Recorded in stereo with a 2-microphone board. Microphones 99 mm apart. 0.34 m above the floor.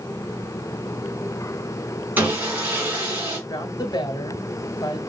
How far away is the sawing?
About 4 m.